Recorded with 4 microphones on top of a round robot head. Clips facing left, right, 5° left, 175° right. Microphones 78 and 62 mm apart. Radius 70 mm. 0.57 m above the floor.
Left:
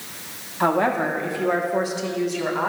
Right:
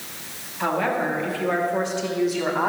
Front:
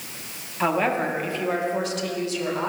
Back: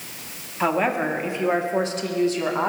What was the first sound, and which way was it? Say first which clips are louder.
A woman speaking: left 3 dB, back 1 dB; 105° left.